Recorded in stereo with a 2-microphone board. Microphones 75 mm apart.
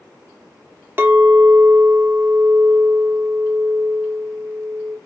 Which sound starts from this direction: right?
A clink, at 1.0 s.